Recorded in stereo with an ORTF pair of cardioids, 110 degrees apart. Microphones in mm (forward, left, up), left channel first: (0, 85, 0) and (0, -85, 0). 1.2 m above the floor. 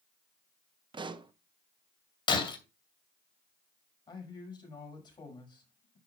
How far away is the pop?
About 1.0 m.